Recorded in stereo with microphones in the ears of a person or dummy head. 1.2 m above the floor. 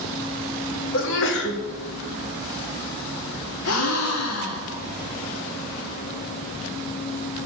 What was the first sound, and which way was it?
A sneeze, 60° left (ahead or behind).